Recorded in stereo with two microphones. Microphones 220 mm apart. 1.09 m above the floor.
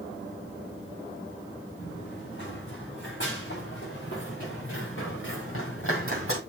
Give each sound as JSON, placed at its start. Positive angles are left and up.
{"t": 1.8, "sound": "running footsteps", "side_deg": 55, "distance_m": 5.5}